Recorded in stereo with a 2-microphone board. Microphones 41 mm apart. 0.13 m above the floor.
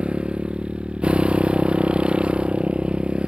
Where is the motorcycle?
25° right (ahead or behind).